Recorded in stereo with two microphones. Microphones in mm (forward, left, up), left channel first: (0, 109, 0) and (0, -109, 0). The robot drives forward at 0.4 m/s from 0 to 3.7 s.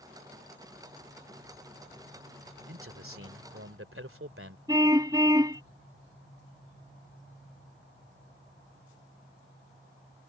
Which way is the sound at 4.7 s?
15° right (ahead or behind).